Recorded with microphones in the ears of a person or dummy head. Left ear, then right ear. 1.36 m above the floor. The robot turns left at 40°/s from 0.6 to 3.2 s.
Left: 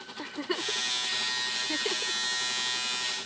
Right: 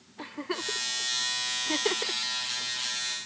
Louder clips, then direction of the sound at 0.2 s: Left 1 dB; 10° left (ahead or behind).